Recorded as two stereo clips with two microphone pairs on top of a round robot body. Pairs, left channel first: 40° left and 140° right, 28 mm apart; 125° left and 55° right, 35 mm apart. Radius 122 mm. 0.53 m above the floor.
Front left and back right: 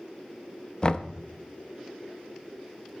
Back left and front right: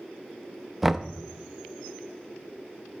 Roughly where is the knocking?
Ahead.